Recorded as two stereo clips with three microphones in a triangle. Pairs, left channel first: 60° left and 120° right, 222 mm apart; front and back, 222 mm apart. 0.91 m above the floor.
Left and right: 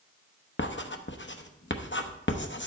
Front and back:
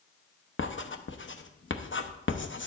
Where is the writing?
30° left, 0.9 m.